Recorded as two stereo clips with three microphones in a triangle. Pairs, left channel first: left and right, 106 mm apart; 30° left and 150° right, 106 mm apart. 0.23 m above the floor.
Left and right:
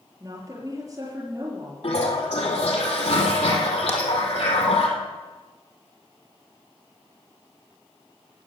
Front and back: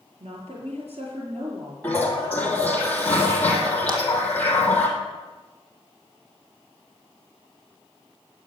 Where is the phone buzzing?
No phone buzzing in this recording.